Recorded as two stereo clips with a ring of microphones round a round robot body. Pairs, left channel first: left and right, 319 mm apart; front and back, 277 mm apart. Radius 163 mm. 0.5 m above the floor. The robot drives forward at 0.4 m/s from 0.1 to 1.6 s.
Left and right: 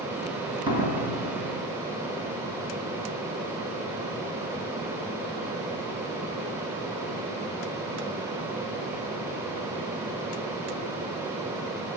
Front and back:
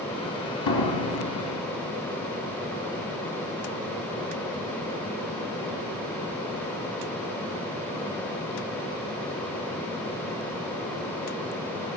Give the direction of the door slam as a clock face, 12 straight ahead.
12 o'clock.